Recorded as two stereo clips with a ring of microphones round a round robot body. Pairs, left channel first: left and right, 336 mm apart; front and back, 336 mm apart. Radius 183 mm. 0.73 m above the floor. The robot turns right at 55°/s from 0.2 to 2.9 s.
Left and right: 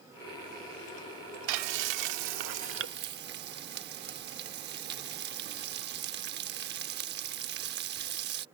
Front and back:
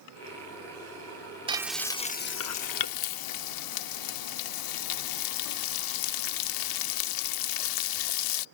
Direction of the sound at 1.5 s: 105° right.